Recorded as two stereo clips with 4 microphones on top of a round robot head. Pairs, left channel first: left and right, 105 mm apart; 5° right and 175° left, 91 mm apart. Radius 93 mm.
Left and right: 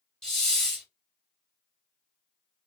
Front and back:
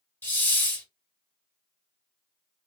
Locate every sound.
0.2 s a hiss: 20° left, 1.4 m